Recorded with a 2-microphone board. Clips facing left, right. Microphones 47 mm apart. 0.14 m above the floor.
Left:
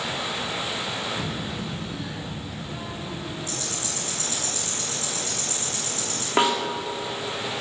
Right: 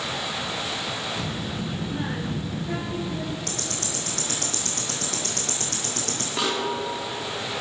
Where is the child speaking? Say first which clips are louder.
Even; 10° left (ahead or behind), 1.3 m; by 3.4 s 50° right (ahead or behind), 2 m.